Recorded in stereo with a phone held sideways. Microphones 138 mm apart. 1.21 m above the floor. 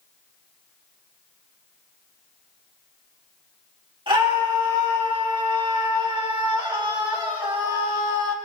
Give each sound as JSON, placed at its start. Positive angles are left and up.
{"t": 4.1, "sound": "a scream", "side_deg": -40, "distance_m": 3.0}